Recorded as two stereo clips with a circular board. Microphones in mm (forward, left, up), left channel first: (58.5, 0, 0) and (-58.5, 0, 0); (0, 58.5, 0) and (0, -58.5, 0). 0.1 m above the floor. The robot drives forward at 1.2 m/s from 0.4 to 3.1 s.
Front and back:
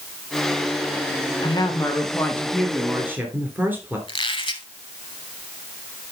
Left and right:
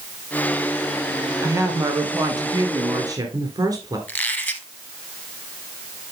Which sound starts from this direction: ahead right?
A woman speaking, at 1.4 s.